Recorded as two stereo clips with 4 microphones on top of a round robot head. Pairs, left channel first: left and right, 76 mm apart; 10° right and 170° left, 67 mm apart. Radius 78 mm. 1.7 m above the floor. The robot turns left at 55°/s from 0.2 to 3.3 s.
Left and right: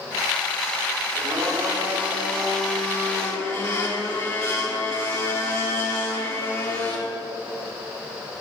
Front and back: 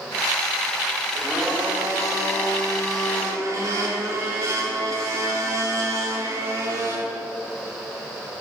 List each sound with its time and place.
1.1 s a blender: 110° right, 4.5 m; by 7.0 s 130° left, 4.5 m